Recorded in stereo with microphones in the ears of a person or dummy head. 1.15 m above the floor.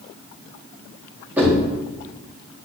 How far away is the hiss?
I don't hear a hiss.